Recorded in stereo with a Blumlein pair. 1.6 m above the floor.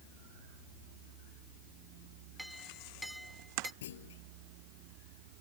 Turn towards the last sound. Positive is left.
turn(degrees=60)